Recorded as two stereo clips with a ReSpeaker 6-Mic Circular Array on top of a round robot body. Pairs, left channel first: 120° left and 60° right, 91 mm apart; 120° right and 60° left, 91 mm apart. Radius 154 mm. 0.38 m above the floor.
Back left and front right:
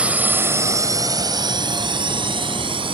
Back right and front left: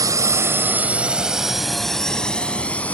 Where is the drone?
15° left; by 2.9 s 45° right.